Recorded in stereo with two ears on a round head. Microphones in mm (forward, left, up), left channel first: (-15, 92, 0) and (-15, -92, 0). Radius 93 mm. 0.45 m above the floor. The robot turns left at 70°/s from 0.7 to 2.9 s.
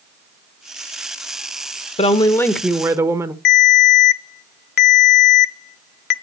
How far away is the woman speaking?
About 0.9 m.